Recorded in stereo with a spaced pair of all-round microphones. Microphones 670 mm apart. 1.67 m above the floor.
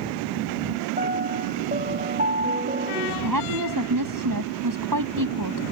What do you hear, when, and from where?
1.0 s a piano: 10° right (ahead or behind)
3.2 s a woman speaking: 30° right (ahead or behind)